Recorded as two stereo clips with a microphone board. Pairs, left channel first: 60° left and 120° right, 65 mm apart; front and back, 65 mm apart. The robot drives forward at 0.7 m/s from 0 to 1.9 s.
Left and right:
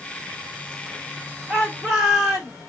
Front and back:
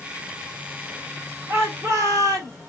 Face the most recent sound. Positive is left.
turn(degrees=160)